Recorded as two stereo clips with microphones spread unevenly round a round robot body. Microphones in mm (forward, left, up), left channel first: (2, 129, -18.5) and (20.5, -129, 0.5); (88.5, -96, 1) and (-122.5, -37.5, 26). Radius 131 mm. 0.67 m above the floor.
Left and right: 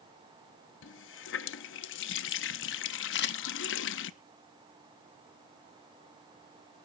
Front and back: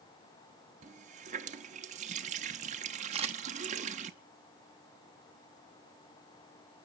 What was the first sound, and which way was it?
A running tap, 105° left.